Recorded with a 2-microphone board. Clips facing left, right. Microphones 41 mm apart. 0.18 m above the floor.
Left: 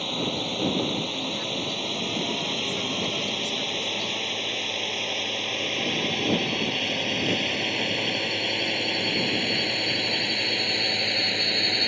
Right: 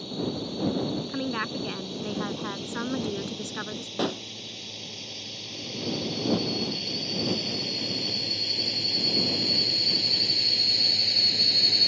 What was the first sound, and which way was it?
A drone, 60° left (ahead or behind).